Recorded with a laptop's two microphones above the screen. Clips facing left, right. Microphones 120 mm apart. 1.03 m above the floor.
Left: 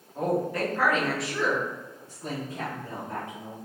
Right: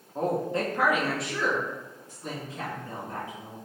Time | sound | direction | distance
0.1 | a woman speaking | 35° right (ahead or behind) | 1.0 m